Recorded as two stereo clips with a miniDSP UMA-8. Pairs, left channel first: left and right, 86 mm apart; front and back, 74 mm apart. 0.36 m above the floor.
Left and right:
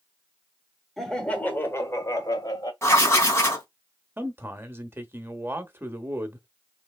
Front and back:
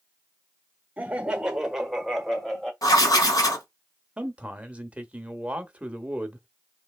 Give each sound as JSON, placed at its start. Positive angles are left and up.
{"t": 1.0, "sound": "laughter", "azimuth_deg": 175, "distance_m": 1.3}
{"t": 2.8, "sound": "writing", "azimuth_deg": 30, "distance_m": 2.5}
{"t": 4.2, "sound": "a man speaking", "azimuth_deg": -125, "distance_m": 1.0}